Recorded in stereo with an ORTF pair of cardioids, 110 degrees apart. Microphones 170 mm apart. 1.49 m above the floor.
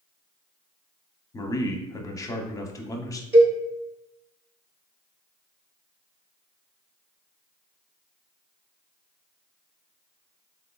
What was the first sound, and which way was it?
A man speaking, 20° left.